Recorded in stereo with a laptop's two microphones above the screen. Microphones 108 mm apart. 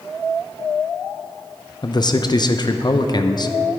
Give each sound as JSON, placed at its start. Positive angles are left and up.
{"t": 1.8, "sound": "a man speaking", "side_deg": 40, "distance_m": 0.5}